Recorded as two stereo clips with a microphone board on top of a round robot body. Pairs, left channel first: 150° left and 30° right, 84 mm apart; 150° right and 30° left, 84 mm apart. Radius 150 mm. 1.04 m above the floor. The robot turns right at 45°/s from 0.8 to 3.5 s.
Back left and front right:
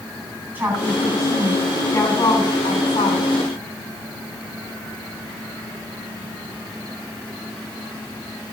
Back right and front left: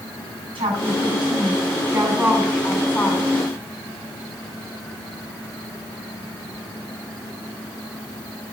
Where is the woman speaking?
40° left, 9.5 m; by 3.3 s 150° left, 9.5 m.